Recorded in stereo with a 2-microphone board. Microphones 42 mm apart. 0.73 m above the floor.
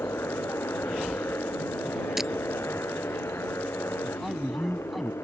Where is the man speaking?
Centre (ahead or behind).